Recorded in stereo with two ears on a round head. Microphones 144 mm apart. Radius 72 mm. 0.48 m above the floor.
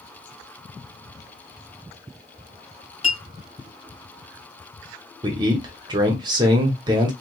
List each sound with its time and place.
3.0 s a clink: 40° left (ahead or behind), 1.1 m
5.2 s a man speaking: 25° right (ahead or behind), 1.0 m